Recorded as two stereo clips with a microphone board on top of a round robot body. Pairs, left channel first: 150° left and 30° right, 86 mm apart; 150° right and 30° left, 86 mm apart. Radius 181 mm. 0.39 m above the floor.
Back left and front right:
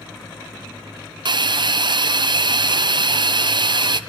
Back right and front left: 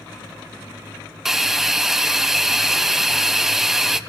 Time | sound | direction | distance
1.2 | a hiss | 55° right | 0.6 m